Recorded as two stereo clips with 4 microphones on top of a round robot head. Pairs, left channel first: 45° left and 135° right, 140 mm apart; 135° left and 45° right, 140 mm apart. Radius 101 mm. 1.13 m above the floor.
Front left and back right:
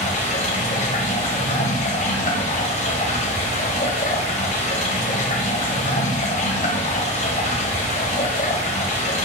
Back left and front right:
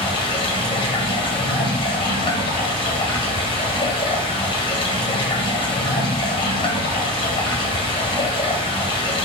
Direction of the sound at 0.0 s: 80° left.